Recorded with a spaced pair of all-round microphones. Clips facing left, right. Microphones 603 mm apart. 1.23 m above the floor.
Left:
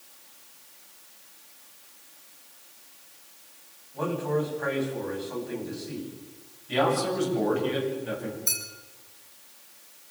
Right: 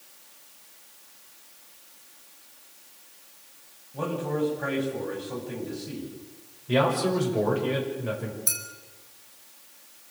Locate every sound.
3.9 s a man speaking: 50° right (ahead or behind), 8 m
6.7 s a man speaking: 85° right, 6 m
8.5 s a clink: 40° right (ahead or behind), 3.5 m